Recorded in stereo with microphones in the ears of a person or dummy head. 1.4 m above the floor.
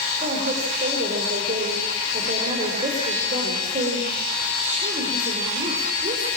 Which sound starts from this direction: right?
A woman speaking, at 0.2 s.